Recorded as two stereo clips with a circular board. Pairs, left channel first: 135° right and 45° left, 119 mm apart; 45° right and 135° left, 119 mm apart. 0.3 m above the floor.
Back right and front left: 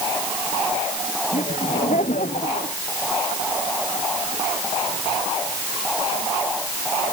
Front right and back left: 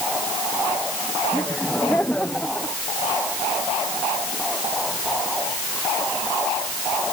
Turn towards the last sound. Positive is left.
turn(degrees=-130)